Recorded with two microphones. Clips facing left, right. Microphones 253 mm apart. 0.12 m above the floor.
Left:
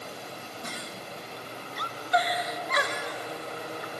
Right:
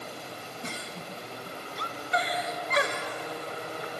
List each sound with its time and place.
0.6 s a giggle: 30° right (ahead or behind), 1.8 m